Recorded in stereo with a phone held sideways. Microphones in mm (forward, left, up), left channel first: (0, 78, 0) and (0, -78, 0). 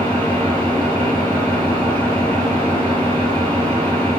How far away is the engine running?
About 2.5 m.